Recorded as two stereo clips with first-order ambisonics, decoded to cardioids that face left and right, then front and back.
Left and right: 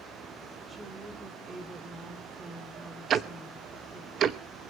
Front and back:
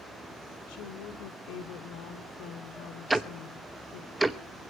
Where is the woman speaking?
15° right, 2.5 m.